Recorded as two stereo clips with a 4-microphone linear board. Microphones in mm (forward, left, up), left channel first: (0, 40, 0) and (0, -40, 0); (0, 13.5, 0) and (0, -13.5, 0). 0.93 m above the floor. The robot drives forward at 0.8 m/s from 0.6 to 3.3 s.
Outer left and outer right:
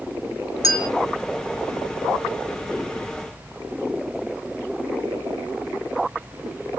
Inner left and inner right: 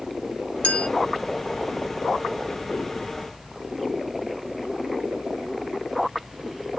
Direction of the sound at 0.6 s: 50° left (ahead or behind).